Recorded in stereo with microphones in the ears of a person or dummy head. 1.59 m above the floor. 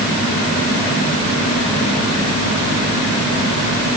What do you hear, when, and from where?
Only background noise.